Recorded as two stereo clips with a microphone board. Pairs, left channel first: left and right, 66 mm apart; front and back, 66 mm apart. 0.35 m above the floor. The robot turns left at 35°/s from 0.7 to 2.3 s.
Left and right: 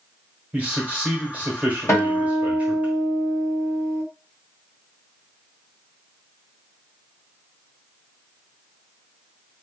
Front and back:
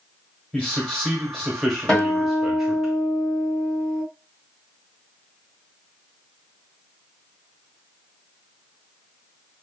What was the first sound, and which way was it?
A man speaking, 50° right.